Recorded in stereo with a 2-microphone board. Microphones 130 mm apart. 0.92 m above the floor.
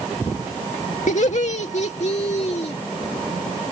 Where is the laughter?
65° left (ahead or behind); by 2.7 s 55° left (ahead or behind).